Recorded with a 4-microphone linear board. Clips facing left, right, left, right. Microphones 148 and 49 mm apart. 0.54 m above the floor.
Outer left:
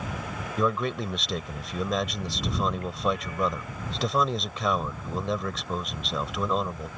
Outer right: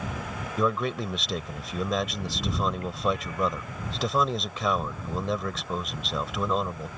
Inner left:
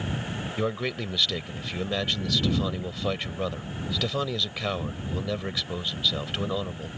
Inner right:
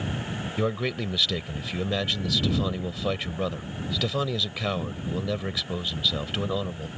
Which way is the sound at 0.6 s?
Centre (ahead or behind).